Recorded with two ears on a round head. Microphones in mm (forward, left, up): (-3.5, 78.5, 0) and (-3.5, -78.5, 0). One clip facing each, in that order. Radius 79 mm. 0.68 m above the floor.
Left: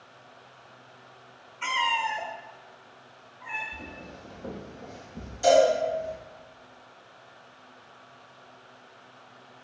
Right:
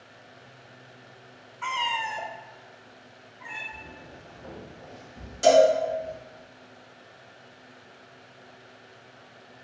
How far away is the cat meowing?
About 0.9 m.